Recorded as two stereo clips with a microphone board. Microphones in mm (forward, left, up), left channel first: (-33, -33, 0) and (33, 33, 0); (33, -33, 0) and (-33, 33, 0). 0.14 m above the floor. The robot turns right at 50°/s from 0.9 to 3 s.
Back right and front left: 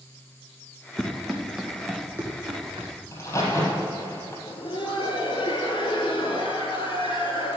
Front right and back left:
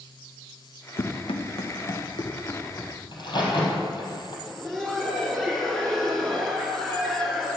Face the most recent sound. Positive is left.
turn(degrees=-130)